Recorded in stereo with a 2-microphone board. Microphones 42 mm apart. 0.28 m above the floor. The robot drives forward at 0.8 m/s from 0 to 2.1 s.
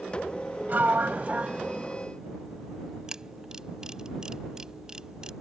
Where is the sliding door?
45° right (ahead or behind); by 2.0 s 25° right (ahead or behind).